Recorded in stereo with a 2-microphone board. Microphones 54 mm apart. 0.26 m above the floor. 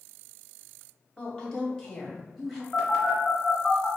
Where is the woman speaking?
25° left (ahead or behind), 1.2 m; by 2.6 s centre (ahead or behind), 1.2 m.